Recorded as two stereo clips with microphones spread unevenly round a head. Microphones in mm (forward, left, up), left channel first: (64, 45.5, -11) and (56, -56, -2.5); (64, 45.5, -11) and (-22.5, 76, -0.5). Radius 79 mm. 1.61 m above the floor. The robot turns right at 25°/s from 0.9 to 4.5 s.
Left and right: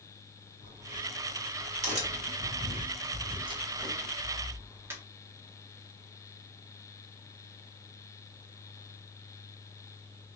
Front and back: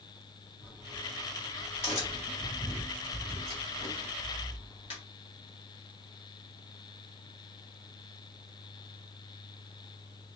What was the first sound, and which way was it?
A crack, 120° right.